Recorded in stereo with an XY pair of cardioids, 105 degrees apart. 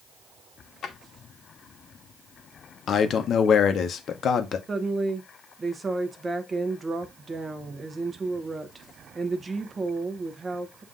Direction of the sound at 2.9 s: 55° left.